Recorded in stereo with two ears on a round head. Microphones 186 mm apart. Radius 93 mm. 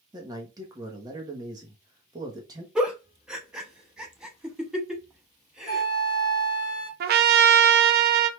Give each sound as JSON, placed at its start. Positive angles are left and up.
{"t": 0.1, "sound": "a man speaking", "side_deg": -20, "distance_m": 1.0}
{"t": 2.8, "sound": "a giggle", "side_deg": -5, "distance_m": 0.8}
{"t": 5.7, "sound": "a flute", "side_deg": 20, "distance_m": 1.3}
{"t": 7.0, "sound": "a trumpet", "side_deg": -50, "distance_m": 0.5}